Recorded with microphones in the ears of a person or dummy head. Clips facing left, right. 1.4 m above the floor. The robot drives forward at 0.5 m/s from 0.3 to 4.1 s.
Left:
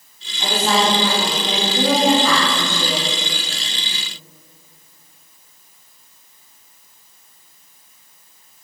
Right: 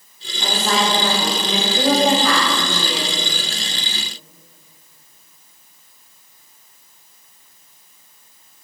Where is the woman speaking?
20° left (ahead or behind), 3 m; by 3.1 s 15° left (ahead or behind), 4 m.